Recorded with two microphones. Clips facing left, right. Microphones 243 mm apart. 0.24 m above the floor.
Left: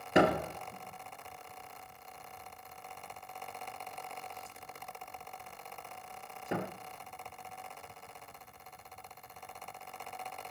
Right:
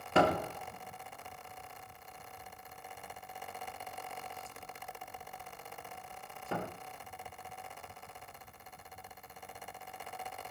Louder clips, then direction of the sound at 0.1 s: Left 2 dB; 20° left (ahead or behind).